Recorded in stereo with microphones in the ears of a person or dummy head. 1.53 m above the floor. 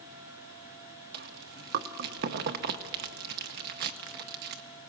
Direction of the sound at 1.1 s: 50° right (ahead or behind).